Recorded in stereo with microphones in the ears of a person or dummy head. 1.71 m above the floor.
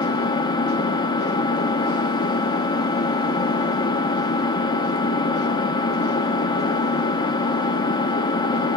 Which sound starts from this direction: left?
An engine running, at 0.0 s.